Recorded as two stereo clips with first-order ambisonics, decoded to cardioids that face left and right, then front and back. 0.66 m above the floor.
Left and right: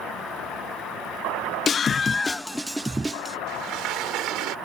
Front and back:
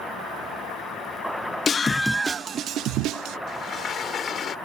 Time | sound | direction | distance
1.7 | a scream | 45° left | ?
3.5 | a sliding door | 60° right | ?